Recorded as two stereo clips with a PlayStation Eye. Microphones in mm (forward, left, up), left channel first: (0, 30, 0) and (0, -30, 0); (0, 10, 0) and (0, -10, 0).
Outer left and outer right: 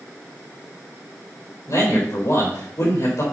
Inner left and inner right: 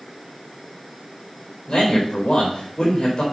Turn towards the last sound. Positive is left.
turn(degrees=65)  # may be behind; listen again after turning